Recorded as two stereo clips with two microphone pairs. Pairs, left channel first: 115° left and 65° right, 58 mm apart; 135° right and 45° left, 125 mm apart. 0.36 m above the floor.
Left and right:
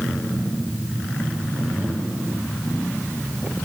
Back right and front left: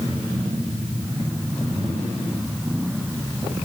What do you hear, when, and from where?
Only background noise.